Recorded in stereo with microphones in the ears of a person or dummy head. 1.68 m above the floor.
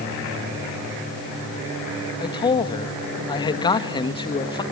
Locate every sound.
2.2 s a man speaking: 20° left (ahead or behind), 2 m